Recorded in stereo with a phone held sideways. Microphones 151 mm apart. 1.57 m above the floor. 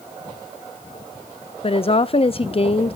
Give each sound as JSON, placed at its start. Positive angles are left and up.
{"t": 1.6, "sound": "a woman speaking", "side_deg": 40, "distance_m": 0.5}